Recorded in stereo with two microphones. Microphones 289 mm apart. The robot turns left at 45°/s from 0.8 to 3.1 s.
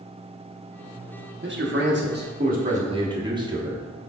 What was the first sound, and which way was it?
A man speaking, 80° right.